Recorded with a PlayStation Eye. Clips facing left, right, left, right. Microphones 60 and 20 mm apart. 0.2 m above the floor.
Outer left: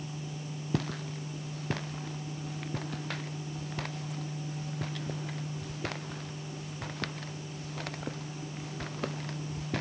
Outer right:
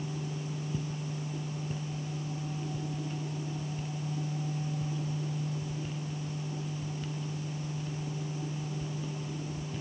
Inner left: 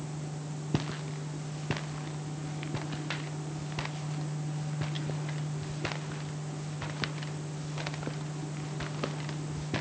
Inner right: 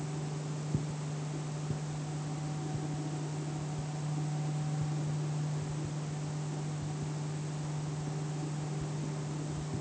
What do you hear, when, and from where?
0.7 s footsteps: 85° left; by 9.8 s 75° left (ahead or behind)